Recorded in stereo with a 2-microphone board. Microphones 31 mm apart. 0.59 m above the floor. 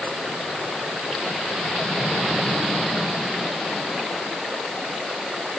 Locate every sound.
Only background noise.